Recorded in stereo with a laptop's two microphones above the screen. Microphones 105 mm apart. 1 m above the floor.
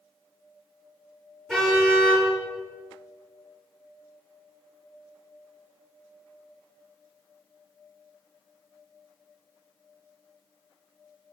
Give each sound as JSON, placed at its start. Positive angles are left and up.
{"t": 1.5, "sound": "a car horn", "side_deg": 5, "distance_m": 9.5}